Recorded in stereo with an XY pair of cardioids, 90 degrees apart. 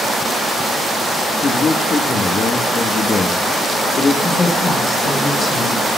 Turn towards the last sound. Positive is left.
turn(degrees=50)